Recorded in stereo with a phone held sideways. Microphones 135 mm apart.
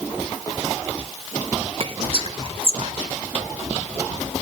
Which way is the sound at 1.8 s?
45° right (ahead or behind).